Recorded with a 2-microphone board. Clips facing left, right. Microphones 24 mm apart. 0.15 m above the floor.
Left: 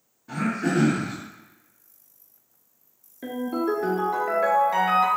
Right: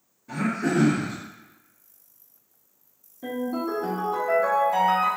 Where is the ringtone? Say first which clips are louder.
Left 2 dB; 55° left (ahead or behind), 0.8 m.